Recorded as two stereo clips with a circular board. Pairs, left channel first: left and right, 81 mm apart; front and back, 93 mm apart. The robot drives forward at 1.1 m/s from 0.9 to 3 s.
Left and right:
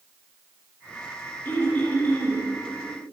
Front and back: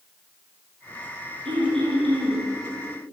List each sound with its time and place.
1.4 s throat clearing: 155° left, 9.5 m; by 2.4 s 160° left, 10.5 m